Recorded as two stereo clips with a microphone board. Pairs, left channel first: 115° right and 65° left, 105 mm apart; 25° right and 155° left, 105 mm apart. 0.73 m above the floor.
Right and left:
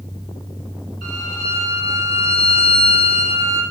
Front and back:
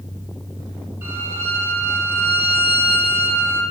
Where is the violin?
135° right, 5.5 m.